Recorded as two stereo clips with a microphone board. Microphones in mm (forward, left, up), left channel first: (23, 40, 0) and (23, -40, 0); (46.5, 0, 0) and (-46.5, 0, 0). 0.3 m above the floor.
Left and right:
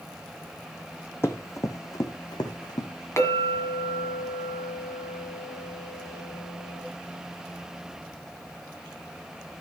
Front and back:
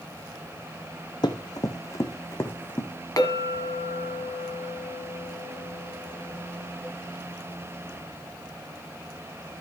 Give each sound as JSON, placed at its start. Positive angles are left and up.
{"t": 1.2, "sound": "running footsteps", "azimuth_deg": 30, "distance_m": 1.1}
{"t": 3.2, "sound": "a clink", "azimuth_deg": 40, "distance_m": 1.8}